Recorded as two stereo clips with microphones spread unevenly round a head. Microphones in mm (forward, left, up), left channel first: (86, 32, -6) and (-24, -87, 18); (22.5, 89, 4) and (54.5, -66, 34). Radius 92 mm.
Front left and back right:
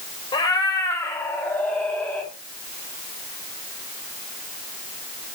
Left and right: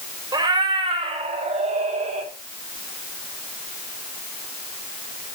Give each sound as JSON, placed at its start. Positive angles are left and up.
{"t": 0.3, "sound": "a cat meowing", "azimuth_deg": -20, "distance_m": 1.9}